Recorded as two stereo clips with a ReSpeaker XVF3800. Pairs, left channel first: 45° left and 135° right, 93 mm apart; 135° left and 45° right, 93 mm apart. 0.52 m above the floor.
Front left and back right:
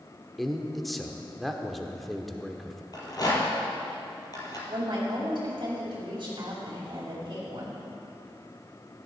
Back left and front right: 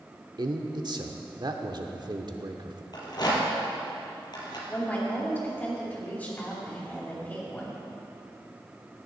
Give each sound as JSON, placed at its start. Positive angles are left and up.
{"t": 0.4, "sound": "a man speaking", "azimuth_deg": -45, "distance_m": 0.9}
{"t": 2.9, "sound": "a rattle", "azimuth_deg": 95, "distance_m": 2.5}
{"t": 4.7, "sound": "a woman speaking", "azimuth_deg": -155, "distance_m": 2.5}